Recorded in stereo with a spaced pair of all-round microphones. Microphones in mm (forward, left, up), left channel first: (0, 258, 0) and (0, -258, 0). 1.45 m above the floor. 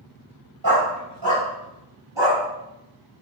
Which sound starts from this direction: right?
A dog barking, at 0.6 s.